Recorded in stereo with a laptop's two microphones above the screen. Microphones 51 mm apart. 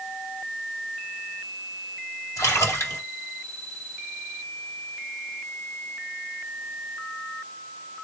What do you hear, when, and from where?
2.4 s a splash: 85° left, 2 m